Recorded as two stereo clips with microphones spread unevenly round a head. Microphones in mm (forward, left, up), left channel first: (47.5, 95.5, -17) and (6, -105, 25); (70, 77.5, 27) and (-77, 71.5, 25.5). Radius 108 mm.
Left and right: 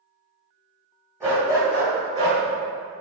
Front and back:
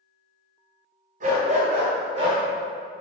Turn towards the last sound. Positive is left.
turn(degrees=-125)